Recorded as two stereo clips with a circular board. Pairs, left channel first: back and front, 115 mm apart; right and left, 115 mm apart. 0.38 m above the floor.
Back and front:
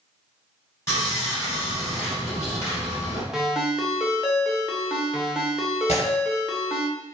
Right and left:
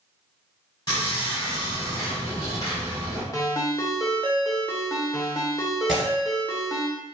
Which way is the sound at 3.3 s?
75° right.